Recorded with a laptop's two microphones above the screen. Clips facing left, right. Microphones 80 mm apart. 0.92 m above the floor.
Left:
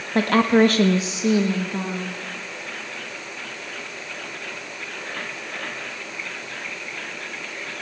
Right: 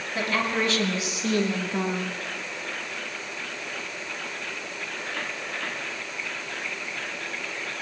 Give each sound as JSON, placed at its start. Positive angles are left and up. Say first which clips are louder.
{"t": 0.1, "sound": "a woman speaking", "louder": "left 10 dB", "side_deg": 60, "distance_m": 1.6}